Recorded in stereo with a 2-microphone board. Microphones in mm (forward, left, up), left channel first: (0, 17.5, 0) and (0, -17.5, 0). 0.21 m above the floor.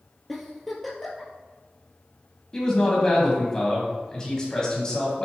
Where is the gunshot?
I don't hear a gunshot.